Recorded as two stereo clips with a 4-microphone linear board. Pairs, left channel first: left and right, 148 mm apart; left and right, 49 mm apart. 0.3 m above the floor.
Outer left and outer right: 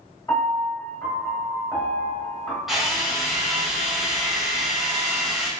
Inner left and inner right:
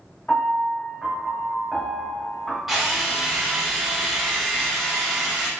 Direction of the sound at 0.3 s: 20° left (ahead or behind).